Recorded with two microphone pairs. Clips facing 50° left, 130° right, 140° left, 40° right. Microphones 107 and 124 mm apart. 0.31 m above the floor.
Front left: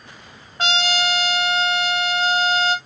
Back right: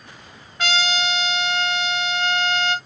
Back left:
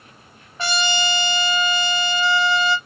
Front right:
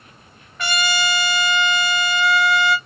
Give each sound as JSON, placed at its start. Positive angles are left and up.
{"t": 0.6, "sound": "a trumpet", "azimuth_deg": 90, "distance_m": 1.1}